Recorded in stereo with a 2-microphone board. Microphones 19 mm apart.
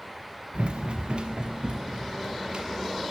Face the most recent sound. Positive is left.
turn(degrees=-50)  # may be behind; listen again after turning